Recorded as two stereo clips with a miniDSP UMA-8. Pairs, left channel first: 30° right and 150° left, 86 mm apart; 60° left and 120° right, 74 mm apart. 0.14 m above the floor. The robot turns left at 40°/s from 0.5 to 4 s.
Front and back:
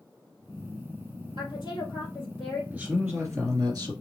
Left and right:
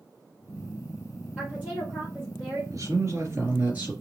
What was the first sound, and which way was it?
A woman speaking, 40° right.